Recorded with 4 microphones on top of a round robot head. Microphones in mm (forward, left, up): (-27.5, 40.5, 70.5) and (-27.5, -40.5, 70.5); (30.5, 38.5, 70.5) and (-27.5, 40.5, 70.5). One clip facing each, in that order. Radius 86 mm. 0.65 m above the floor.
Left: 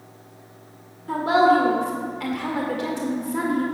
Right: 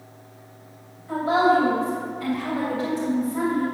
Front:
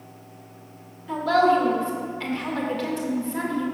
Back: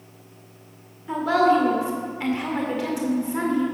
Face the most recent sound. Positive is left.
turn(degrees=105)